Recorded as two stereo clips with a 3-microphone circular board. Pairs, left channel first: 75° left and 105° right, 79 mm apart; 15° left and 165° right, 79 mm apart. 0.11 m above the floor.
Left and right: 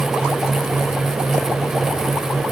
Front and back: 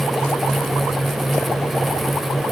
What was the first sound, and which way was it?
Only background noise.